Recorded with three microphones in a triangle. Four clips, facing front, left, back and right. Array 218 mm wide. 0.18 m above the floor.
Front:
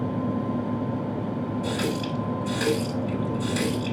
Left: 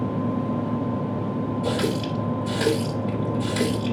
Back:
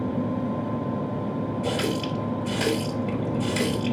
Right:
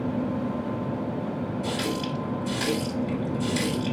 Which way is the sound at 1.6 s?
110° left.